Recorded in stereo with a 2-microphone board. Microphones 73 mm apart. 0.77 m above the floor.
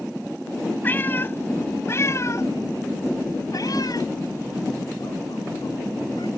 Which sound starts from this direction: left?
A cat meowing, at 0.8 s.